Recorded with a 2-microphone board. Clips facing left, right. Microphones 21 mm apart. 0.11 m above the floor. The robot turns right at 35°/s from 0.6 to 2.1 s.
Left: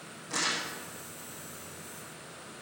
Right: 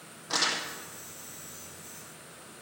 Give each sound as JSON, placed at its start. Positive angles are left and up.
{"t": 0.3, "sound": "crumpling", "side_deg": -55, "distance_m": 2.5}